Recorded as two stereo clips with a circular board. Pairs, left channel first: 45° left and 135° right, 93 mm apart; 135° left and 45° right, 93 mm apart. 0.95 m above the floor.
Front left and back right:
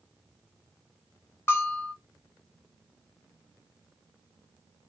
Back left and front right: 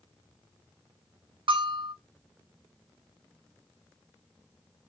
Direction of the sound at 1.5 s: 20° right.